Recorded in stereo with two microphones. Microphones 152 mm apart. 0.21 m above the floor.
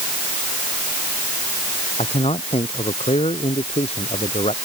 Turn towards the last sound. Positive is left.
turn(degrees=45)  # may be behind; listen again after turning